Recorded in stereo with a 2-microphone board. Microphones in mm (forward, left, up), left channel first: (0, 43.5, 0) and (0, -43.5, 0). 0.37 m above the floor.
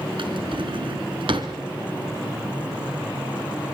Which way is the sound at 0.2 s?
70° right (ahead or behind).